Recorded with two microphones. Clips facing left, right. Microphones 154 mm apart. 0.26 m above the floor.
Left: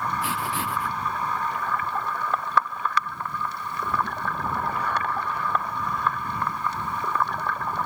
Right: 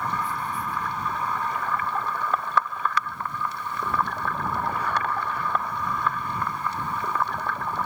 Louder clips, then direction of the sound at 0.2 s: Left 1 dB; 85° left.